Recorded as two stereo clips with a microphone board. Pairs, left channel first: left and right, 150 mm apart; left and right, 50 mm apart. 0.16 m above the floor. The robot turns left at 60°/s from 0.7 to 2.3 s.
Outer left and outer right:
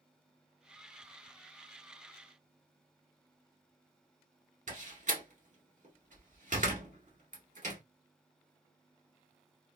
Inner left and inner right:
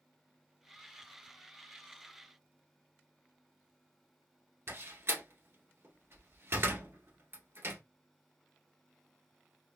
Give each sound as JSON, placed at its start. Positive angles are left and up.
{"t": 4.7, "sound": "a door slam", "side_deg": -55, "distance_m": 1.4}